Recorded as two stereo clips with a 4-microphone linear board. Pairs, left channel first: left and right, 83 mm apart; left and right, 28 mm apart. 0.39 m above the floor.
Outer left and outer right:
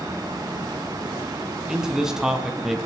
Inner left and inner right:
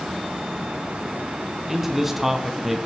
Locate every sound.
1.7 s a man speaking: 5° right (ahead or behind), 4 m; by 2.9 s centre (ahead or behind), 2.5 m